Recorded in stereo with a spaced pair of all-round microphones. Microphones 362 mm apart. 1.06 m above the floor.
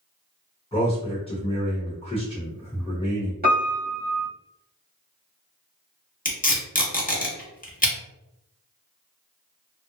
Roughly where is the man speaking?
Centre.